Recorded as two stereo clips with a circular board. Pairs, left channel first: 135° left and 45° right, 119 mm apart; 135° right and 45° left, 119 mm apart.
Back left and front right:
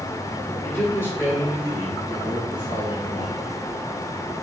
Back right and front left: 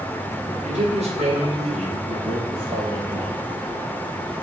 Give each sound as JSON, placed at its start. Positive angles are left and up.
{"t": 0.6, "sound": "a man speaking", "azimuth_deg": 65, "distance_m": 4.0}